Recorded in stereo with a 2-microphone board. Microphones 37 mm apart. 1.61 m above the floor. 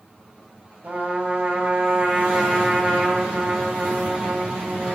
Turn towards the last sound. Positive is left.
turn(degrees=-45)  # may be behind; listen again after turning